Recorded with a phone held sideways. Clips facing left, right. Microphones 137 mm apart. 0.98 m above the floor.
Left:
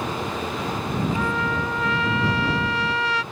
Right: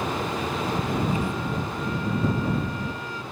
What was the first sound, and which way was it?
A trumpet, 85° left.